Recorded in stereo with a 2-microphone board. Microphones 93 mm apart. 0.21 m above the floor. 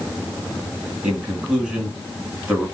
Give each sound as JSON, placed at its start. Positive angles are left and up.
{"t": 1.0, "sound": "a man speaking", "side_deg": -15, "distance_m": 2.5}